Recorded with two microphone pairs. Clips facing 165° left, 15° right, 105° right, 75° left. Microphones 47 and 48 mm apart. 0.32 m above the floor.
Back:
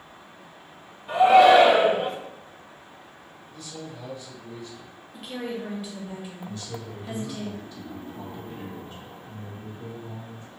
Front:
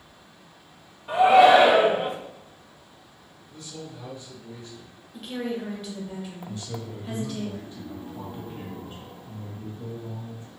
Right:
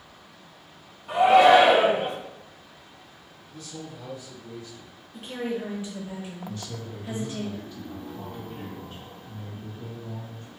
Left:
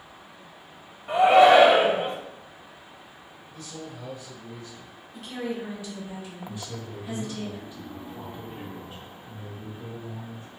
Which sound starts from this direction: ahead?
A man speaking, at 6.5 s.